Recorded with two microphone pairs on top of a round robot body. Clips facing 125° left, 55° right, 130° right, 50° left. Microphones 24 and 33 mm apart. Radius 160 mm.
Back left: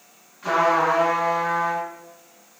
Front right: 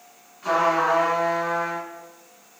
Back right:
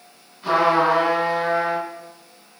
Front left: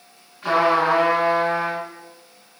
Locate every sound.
0.4 s a trumpet: 55° left, 2.0 m